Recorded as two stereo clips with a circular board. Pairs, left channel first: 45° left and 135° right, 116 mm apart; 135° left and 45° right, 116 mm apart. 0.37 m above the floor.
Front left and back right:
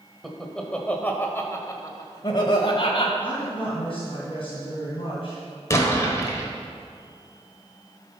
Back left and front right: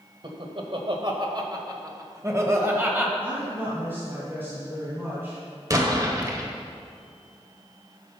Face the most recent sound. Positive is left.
turn(degrees=-5)